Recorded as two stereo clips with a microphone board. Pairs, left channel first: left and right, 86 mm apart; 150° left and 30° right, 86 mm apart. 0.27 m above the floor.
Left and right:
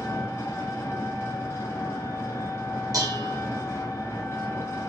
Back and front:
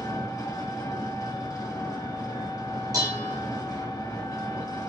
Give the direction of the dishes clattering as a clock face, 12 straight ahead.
2 o'clock.